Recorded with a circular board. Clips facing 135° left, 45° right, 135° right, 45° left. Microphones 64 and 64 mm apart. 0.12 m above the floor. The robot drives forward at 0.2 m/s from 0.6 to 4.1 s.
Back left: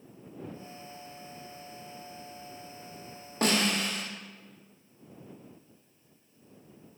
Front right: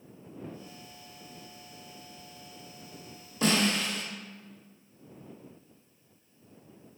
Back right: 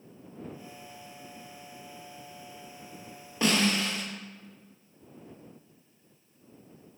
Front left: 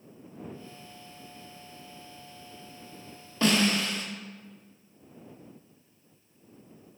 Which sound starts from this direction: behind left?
A snare drum, at 3.4 s.